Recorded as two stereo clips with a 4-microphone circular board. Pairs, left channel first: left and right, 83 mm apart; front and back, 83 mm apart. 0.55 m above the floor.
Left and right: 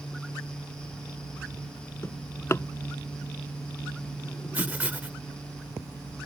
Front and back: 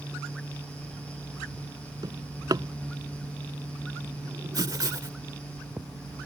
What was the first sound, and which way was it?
A drawer, 145° left.